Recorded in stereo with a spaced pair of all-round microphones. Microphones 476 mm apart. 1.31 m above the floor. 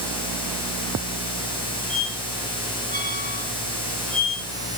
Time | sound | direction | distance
1.9 | a squeak | 40° right (ahead or behind) | 6.5 m